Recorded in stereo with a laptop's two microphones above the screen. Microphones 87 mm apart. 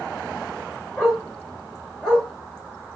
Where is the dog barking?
5° left (ahead or behind), 1.6 m.